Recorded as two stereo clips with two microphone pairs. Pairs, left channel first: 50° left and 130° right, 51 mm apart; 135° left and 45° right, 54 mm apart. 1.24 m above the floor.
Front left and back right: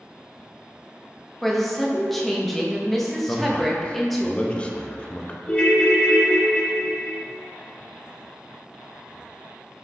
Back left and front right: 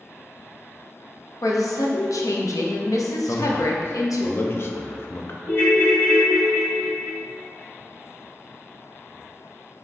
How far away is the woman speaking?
About 0.7 m.